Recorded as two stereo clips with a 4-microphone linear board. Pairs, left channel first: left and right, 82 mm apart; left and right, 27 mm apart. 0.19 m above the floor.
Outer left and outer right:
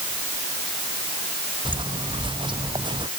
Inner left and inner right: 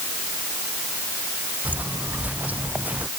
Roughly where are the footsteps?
Right.